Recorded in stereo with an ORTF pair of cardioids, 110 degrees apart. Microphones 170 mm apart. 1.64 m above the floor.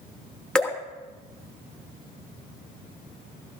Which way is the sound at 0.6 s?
5° left.